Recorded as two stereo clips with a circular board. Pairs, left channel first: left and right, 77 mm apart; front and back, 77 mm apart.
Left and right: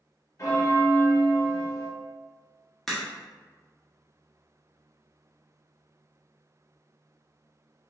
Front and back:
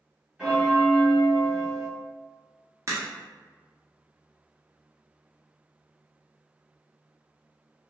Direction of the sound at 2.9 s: 175° left.